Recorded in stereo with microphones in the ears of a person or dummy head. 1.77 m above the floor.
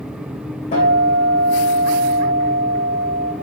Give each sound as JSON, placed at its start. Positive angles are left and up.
{"t": 0.7, "sound": "a guitar", "side_deg": 35, "distance_m": 1.5}